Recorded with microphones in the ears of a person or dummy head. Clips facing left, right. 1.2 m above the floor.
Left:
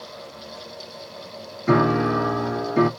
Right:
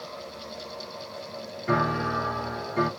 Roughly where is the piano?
Left.